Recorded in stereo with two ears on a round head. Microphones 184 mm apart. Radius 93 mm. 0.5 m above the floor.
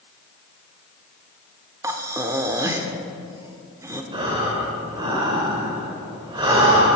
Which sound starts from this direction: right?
Breathing, at 4.1 s.